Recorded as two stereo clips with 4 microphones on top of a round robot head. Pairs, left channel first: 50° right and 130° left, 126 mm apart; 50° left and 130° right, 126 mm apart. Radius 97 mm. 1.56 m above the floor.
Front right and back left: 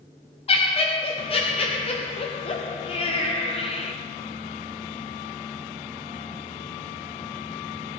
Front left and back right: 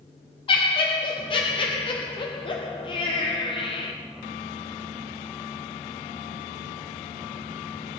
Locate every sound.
0.5 s laughter: 5° right, 0.9 m